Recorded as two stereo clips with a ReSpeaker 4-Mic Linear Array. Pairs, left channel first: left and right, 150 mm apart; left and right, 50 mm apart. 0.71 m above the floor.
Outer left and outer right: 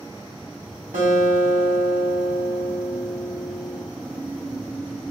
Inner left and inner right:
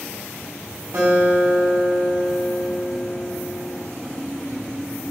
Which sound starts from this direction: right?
A guitar, at 0.9 s.